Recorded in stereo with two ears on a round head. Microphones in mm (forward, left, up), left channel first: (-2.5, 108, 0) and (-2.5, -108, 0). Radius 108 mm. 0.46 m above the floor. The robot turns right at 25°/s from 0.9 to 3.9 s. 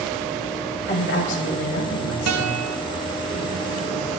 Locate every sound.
0.9 s a woman speaking: 50° left, 2.5 m; by 2.6 s 95° left, 2.5 m
2.3 s a guitar: 70° right (ahead or behind), 2 m